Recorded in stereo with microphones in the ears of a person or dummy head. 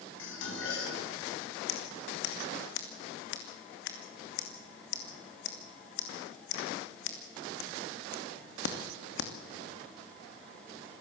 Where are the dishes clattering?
70° left (ahead or behind), 8 m.